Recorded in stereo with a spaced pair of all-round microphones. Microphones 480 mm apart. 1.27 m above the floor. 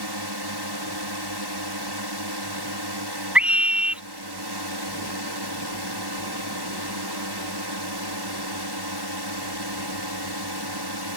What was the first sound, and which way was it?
A drone, 50° right (ahead or behind).